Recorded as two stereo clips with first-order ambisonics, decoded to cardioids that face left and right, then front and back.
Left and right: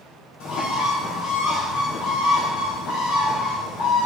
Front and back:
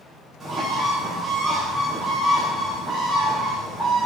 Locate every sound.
0.4 s a bird: 105° left, 2.5 m